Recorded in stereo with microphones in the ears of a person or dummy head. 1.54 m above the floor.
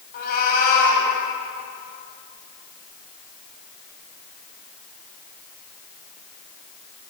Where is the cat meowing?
55° left (ahead or behind), 6 m.